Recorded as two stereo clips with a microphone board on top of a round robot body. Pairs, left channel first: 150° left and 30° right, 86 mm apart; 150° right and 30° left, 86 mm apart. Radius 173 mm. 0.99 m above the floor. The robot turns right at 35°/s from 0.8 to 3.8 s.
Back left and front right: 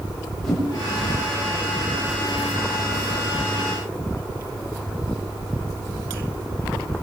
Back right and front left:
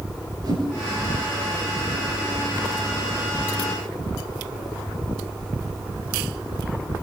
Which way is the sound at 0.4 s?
65° left.